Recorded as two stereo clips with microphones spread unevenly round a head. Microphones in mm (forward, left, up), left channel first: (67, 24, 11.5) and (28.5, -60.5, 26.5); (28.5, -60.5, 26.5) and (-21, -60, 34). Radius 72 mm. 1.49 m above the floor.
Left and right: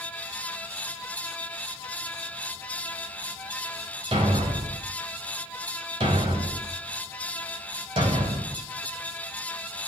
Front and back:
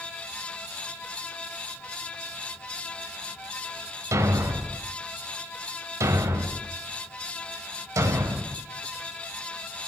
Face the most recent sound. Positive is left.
turn(degrees=-170)